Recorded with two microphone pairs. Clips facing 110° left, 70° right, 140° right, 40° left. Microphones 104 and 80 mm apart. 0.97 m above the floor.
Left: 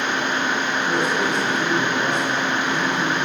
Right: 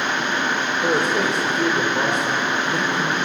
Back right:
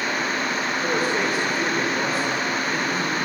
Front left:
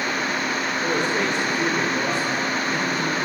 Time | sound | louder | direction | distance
0.8 | a man speaking | right 3 dB, even | 55° right | 4 m